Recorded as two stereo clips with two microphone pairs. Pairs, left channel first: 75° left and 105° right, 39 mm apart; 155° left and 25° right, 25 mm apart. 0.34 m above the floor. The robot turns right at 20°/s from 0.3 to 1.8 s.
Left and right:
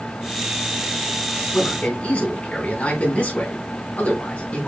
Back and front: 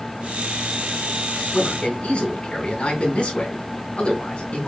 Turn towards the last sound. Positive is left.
turn(degrees=120)